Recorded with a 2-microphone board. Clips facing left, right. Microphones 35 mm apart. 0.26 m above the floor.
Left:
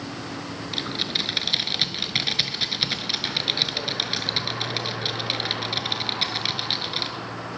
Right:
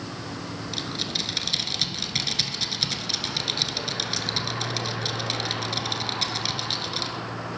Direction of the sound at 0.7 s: 25° left (ahead or behind).